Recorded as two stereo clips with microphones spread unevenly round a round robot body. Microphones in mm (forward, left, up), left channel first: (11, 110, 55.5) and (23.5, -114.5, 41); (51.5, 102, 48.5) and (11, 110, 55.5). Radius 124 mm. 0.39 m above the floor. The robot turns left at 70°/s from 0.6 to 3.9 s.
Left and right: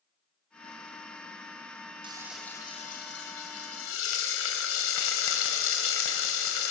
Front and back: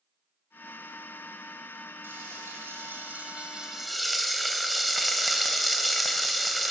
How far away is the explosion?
No explosion in this recording.